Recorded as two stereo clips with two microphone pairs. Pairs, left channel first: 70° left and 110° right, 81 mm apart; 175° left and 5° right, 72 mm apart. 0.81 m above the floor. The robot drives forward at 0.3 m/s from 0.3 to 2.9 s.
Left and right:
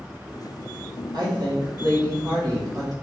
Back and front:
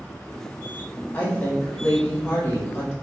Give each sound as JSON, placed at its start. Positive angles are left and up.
{"t": 1.1, "sound": "a woman speaking", "azimuth_deg": -125, "distance_m": 1.3}